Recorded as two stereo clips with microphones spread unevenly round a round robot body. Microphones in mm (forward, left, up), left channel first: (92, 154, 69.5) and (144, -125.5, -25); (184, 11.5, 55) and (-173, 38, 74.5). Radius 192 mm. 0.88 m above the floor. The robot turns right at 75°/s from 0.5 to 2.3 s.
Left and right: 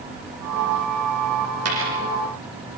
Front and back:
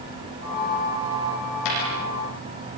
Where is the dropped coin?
45° right, 9.5 m; by 2.0 s 20° right, 9.5 m.